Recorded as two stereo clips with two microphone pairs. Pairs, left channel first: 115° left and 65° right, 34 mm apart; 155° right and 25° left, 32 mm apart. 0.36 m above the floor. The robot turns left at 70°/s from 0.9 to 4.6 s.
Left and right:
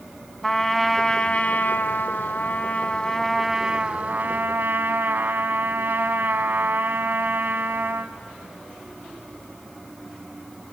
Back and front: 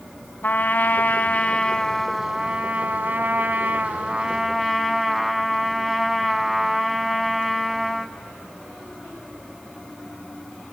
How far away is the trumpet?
About 1.1 m.